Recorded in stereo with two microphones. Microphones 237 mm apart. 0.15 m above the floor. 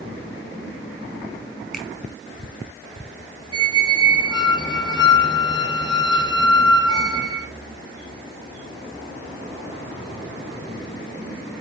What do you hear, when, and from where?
1.7 s a finger snap: centre (ahead or behind), 1.4 m
3.5 s a squeak: 20° left (ahead or behind), 1.0 m